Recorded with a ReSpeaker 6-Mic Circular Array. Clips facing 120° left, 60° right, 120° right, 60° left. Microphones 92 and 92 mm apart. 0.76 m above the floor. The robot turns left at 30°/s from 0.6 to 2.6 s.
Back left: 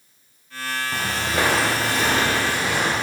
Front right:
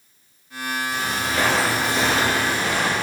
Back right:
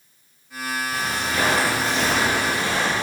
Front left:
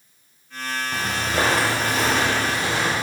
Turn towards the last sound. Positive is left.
turn(degrees=-75)